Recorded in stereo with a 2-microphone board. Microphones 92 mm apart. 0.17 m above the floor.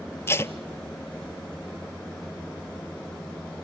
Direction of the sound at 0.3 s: 30° left (ahead or behind).